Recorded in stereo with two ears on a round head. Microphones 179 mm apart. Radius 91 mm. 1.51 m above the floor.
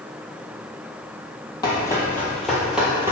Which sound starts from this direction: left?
Running footsteps, at 1.6 s.